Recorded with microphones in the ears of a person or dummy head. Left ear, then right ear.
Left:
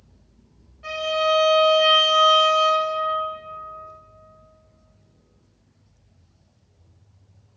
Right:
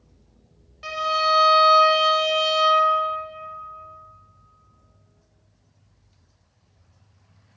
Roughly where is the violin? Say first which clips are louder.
Even; right.